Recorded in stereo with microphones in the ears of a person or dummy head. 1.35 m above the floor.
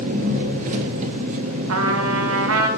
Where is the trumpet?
85° right, 0.8 m.